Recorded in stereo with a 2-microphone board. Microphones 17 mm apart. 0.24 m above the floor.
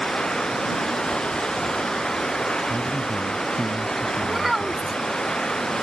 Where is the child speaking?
10° right (ahead or behind).